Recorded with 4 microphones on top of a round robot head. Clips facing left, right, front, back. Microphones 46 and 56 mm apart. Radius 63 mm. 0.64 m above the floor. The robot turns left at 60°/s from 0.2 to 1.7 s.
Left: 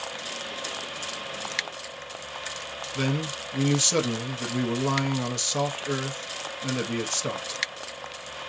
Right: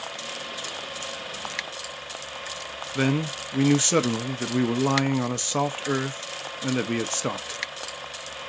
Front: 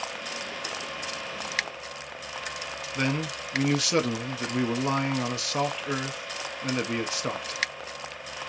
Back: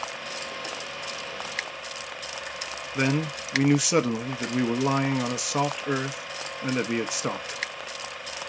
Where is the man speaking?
115° right, 0.6 m.